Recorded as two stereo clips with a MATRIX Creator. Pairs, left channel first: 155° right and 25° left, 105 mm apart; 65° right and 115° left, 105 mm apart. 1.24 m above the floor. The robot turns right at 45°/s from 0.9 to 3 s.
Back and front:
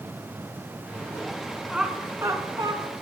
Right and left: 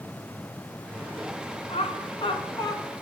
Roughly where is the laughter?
Ahead right.